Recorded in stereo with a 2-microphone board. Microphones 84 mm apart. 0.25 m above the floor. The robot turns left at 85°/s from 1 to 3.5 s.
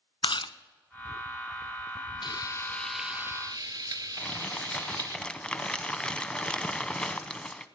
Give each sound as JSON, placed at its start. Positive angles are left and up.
{"t": 0.2, "sound": "chewing", "side_deg": 75, "distance_m": 0.6}
{"t": 2.2, "sound": "frying", "azimuth_deg": 60, "distance_m": 0.8}
{"t": 4.2, "sound": "crumpling", "side_deg": 10, "distance_m": 0.7}